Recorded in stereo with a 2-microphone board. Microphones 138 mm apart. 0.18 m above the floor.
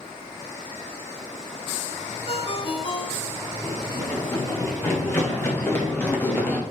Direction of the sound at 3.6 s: 20° left (ahead or behind).